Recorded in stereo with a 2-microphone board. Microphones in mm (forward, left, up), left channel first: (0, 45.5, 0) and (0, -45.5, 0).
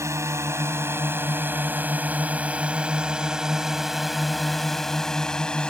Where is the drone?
35° right (ahead or behind); by 5.7 s 10° left (ahead or behind).